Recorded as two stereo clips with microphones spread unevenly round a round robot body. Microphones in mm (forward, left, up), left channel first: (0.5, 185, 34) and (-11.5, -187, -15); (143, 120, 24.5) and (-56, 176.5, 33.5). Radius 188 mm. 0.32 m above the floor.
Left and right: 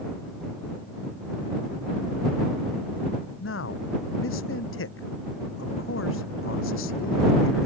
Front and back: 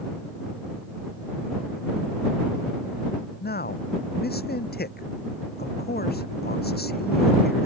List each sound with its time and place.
3.4 s a man speaking: 30° left